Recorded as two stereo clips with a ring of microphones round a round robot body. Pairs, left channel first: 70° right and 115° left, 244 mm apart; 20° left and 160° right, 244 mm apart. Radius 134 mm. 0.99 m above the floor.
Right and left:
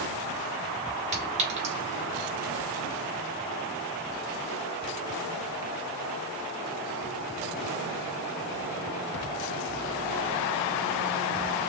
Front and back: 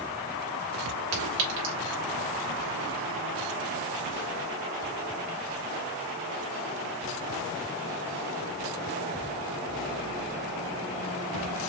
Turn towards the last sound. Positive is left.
turn(degrees=175)